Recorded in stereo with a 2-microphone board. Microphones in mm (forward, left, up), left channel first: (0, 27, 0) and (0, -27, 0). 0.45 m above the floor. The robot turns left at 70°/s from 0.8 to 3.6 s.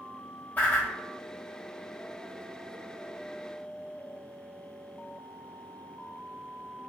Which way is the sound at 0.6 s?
35° left (ahead or behind).